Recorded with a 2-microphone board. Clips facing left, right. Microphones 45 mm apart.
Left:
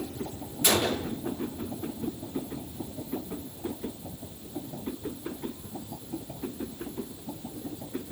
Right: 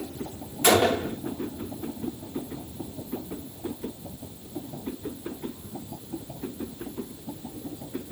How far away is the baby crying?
I don't hear a baby crying.